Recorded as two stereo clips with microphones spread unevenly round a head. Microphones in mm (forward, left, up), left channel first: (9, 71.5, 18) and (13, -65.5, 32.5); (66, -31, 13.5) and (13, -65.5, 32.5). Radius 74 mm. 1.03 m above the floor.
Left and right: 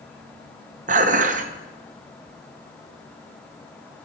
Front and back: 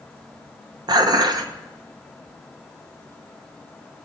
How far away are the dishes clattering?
About 0.8 m.